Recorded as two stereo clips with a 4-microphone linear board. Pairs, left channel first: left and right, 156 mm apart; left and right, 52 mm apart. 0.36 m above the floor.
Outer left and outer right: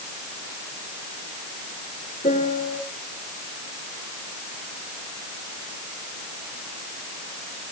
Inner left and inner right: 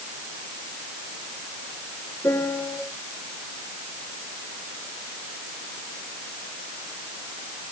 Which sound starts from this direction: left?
A piano, at 2.2 s.